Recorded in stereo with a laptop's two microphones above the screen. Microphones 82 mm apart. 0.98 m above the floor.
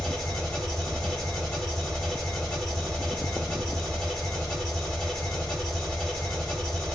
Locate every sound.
0.0 s an engine running: 10° left (ahead or behind), 1.2 m